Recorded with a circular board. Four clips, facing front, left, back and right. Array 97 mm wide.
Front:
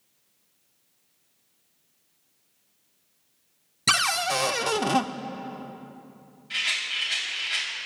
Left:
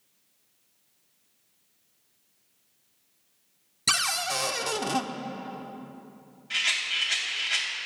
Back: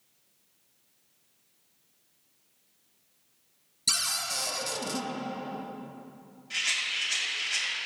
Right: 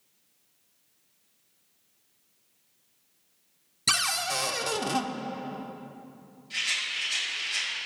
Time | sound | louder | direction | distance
3.9 | a cupboard door | left 1 dB, front 12 dB | straight ahead | 0.5 m
6.5 | a rattle | left 3 dB, front 2 dB | 75° left | 5 m